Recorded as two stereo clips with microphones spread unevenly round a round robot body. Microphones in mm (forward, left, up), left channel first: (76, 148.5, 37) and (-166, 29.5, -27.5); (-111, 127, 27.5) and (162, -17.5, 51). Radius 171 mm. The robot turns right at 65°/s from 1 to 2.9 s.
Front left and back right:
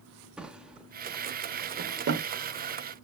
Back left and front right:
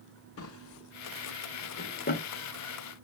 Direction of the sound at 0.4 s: 130° left.